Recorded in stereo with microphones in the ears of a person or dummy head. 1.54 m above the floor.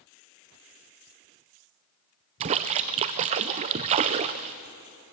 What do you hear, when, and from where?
2.4 s a splash: 30° right (ahead or behind), 0.5 m